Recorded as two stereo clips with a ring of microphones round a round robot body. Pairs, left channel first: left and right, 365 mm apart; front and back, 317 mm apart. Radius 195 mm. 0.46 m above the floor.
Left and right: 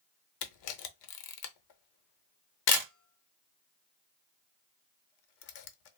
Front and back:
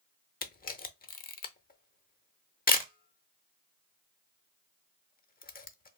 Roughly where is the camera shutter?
Ahead left.